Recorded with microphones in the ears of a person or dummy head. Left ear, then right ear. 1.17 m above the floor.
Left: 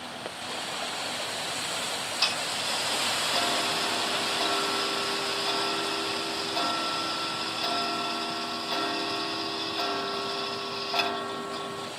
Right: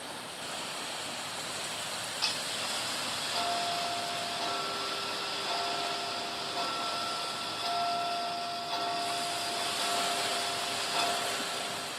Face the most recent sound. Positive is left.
turn(degrees=30)  # may be behind; listen again after turning